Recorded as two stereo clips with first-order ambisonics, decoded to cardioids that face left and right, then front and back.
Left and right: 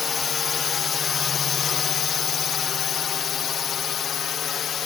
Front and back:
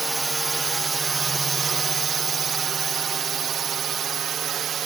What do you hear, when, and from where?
0.0 s a drone: 115° left; by 4.9 s 135° left